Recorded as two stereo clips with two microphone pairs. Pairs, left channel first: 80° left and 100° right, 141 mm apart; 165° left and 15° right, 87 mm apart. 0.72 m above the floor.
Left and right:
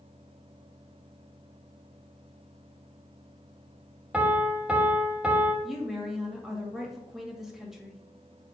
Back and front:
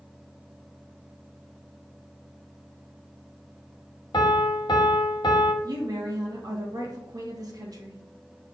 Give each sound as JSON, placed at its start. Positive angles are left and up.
{"t": 4.1, "sound": "a piano", "azimuth_deg": 180, "distance_m": 0.8}
{"t": 5.6, "sound": "a woman speaking", "azimuth_deg": -15, "distance_m": 1.1}